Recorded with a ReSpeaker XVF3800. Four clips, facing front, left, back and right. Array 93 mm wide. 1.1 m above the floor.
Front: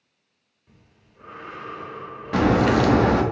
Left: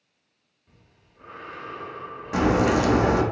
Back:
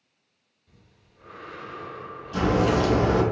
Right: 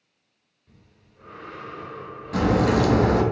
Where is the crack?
20° left, 0.6 m.